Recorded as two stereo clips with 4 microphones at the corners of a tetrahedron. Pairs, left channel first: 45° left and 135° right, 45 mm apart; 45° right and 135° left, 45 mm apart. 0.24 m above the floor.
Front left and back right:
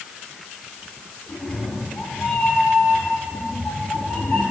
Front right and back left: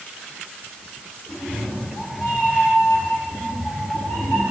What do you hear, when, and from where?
1.3 s a cat meowing: 15° right, 8.5 m; by 4.4 s 25° right, 11 m